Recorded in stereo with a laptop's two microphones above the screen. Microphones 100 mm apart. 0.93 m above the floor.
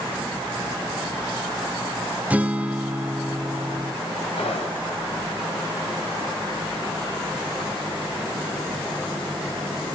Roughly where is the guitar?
Centre.